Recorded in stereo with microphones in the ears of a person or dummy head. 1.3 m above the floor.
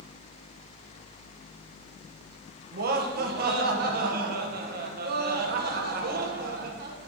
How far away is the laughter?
About 1.1 m.